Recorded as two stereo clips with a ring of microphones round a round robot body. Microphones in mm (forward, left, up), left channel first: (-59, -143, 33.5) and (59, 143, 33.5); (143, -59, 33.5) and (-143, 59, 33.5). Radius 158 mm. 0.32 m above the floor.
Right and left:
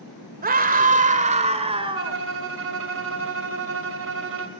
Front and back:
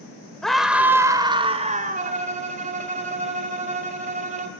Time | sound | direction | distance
0.4 | a scream | 65° left | 1.6 m
1.9 | a violin | 100° left | 2 m